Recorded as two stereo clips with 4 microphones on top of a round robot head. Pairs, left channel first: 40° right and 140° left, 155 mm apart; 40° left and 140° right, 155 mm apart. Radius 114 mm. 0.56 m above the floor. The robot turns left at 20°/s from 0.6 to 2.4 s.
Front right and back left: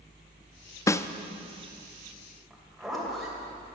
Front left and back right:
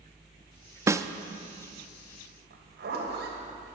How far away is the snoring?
No snoring in this recording.